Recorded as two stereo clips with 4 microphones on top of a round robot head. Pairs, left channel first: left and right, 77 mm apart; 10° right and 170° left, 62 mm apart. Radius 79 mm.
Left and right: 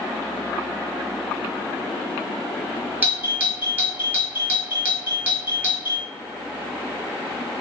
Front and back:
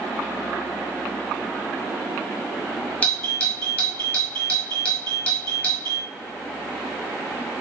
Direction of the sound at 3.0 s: 50° right.